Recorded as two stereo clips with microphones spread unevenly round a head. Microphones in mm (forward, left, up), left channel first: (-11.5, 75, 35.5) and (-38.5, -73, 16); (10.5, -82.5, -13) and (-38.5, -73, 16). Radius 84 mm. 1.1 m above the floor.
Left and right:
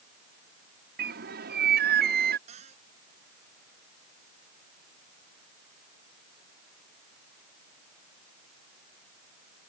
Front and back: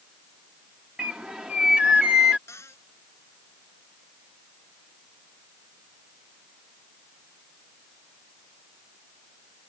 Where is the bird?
115° right.